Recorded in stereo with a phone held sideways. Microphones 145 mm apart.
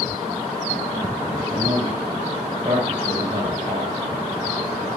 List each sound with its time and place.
1.5 s a man speaking: 30° right (ahead or behind), 6.5 m